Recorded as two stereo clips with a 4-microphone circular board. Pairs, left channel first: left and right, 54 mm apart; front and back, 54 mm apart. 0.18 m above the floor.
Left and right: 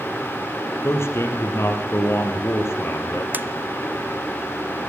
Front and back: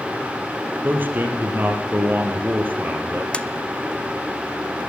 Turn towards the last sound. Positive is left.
turn(degrees=-60)